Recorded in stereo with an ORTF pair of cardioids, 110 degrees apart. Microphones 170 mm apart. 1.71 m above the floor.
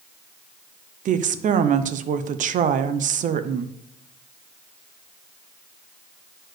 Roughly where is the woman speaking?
Ahead right.